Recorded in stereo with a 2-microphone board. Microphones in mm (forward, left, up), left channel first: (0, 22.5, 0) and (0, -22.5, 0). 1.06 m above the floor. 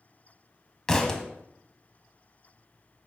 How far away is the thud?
About 0.9 m.